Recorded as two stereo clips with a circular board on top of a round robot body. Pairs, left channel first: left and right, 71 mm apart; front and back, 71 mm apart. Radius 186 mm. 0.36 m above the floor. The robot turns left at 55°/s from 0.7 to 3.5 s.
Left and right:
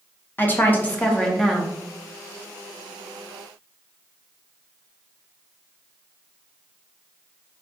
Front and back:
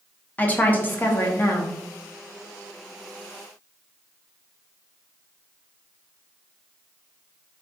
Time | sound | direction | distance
0.4 | a woman speaking | 50° left | 0.9 m